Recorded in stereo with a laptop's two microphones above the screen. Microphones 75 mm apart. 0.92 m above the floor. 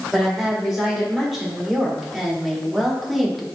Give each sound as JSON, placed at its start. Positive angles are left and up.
{"t": 0.1, "sound": "a woman speaking", "side_deg": 0, "distance_m": 4.0}